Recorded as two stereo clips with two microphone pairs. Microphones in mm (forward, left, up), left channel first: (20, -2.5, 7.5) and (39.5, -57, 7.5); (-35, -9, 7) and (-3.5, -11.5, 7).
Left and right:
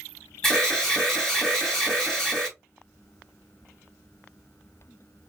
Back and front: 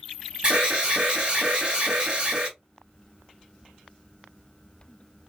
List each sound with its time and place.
0.4 s an alarm: 25° left, 1.3 m